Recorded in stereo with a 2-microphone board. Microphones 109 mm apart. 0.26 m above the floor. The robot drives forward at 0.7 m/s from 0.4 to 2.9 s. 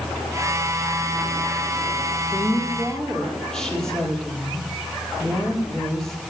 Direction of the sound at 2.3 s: 5° left (ahead or behind).